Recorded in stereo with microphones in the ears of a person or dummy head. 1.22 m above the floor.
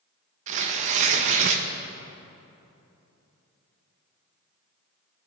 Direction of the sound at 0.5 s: 45° right (ahead or behind).